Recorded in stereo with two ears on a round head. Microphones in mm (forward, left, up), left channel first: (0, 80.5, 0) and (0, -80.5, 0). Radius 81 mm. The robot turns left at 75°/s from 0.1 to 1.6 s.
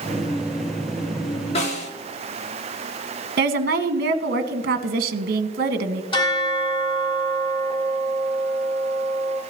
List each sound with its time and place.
1.6 s a snare drum: 35° left (ahead or behind), 1.7 m; by 1.9 s 40° left (ahead or behind), 1.7 m
3.4 s a woman speaking: 55° right (ahead or behind), 1.2 m
6.1 s a bell: 30° left (ahead or behind), 3.5 m